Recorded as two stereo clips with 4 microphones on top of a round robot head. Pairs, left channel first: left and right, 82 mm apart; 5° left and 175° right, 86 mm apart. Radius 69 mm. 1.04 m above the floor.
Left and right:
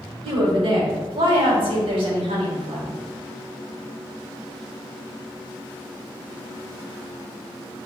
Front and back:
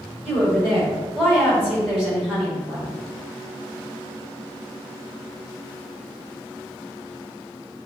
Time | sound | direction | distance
0.2 | a woman speaking | 85° right | 3 m